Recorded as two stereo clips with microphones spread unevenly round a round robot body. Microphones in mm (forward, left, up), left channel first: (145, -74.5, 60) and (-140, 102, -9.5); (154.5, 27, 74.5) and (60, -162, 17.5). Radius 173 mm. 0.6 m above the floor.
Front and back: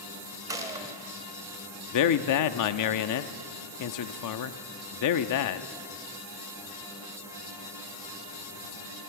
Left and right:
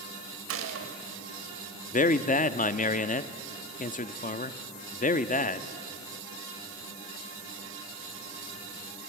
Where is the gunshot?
135° right, 1.6 m.